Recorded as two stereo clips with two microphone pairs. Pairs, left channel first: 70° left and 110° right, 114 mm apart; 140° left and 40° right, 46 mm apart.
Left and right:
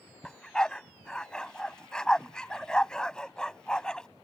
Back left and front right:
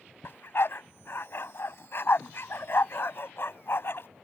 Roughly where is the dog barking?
Behind left.